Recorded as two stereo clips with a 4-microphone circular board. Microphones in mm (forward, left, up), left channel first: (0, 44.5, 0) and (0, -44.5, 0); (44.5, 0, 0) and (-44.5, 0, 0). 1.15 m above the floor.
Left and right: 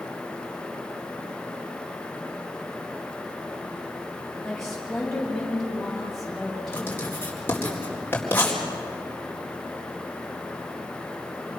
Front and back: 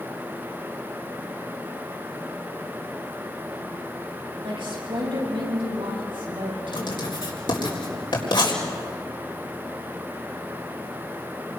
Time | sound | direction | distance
4.4 | a woman speaking | straight behind | 7.5 m
6.7 | writing | 25° left | 4 m